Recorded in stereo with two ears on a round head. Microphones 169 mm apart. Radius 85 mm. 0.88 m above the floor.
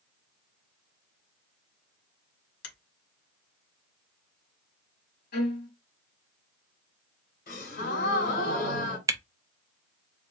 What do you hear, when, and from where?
2.6 s a finger snap: 60° left (ahead or behind), 1.8 m
5.3 s a violin: 50° left (ahead or behind), 1.9 m
7.5 s a gasp: 50° left (ahead or behind), 2 m
9.1 s a camera shutter: 15° right (ahead or behind), 0.5 m